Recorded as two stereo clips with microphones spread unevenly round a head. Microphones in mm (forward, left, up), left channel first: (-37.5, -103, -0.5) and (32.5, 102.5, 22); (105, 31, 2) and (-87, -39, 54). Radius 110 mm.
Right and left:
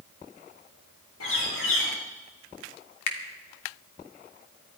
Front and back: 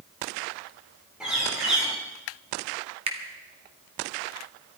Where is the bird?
75° right, 8 m.